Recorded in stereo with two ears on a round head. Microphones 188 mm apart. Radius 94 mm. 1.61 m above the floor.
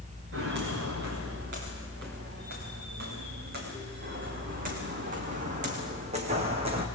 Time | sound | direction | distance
0.3 | footsteps | 55° right (ahead or behind) | 8 m